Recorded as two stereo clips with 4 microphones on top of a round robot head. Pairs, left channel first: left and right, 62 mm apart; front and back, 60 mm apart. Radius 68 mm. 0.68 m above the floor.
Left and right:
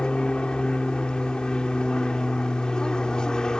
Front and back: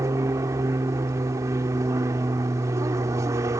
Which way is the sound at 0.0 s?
165° left.